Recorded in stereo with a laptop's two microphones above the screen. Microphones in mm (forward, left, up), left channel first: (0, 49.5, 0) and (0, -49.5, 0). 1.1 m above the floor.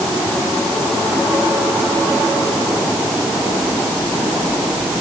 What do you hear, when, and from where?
Only background noise.